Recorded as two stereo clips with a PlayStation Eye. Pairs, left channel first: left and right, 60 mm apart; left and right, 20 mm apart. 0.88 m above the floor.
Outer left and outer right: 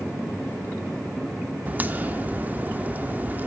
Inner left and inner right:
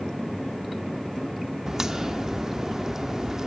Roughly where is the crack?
Right.